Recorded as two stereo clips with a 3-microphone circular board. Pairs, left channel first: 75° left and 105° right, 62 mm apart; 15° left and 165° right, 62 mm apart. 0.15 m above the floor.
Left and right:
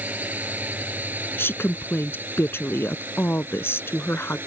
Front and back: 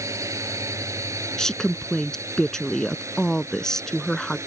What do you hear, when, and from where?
0.0 s a drone: 160° right; by 4.5 s 150° right
1.4 s a woman speaking: 90° left